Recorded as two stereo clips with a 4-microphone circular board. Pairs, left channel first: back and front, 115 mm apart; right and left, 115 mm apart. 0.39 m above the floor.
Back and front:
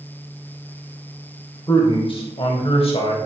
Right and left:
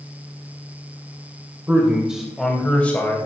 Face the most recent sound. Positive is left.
turn(degrees=-160)